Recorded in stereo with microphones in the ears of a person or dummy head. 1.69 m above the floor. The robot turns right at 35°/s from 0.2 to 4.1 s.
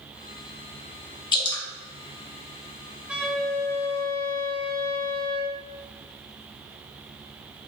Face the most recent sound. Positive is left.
turn(degrees=25)